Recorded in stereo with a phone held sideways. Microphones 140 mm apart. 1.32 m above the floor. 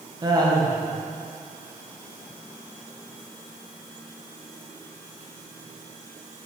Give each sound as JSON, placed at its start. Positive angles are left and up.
{"t": 0.2, "sound": "laughter", "side_deg": -25, "distance_m": 1.6}